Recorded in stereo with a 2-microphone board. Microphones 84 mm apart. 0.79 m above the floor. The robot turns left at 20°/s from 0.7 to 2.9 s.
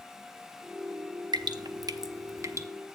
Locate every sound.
1.3 s dripping: 55° right (ahead or behind), 0.6 m; by 2.7 s 35° right (ahead or behind), 0.6 m